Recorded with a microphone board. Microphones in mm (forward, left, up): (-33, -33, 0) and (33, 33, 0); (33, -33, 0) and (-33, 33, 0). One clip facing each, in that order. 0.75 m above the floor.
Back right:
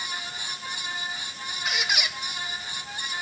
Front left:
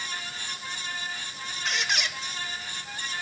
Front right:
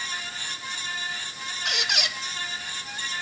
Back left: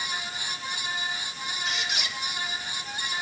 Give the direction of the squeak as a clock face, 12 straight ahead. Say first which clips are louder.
Back right 1 dB, front right 4 dB; 2 o'clock.